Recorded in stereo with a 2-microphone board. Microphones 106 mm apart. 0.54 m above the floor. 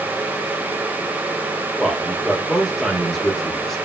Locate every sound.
1.8 s a man speaking: centre (ahead or behind), 1.0 m